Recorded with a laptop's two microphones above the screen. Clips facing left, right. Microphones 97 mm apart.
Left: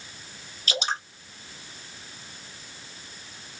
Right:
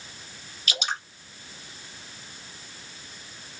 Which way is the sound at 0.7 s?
35° left (ahead or behind).